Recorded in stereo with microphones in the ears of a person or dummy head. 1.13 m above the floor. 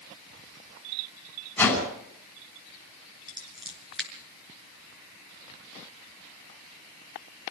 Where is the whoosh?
10° left (ahead or behind), 7 m.